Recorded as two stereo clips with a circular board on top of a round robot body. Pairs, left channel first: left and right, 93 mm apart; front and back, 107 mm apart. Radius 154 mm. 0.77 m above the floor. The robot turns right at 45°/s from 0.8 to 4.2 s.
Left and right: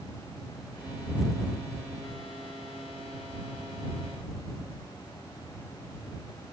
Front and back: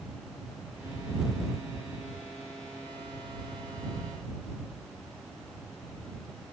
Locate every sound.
Only background noise.